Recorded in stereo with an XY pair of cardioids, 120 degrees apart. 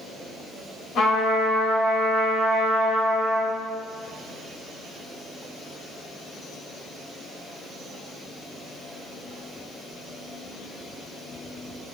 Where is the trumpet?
60° left, 1.0 m.